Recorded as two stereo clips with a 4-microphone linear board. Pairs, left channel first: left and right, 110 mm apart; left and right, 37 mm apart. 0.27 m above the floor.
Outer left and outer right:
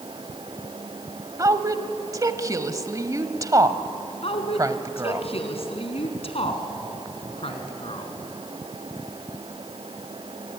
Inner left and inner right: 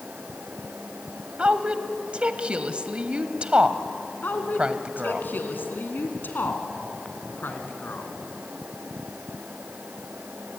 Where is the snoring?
No snoring in this recording.